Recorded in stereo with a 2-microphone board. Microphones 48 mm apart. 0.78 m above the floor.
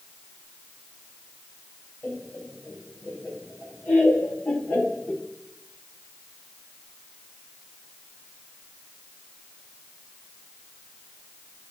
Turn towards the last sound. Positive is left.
turn(degrees=15)  # may be behind; listen again after turning